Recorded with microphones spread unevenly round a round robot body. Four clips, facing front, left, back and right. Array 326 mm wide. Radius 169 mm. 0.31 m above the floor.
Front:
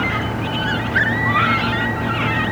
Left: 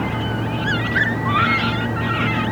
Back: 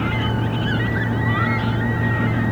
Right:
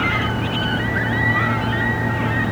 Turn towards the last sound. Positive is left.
No sound to turn to.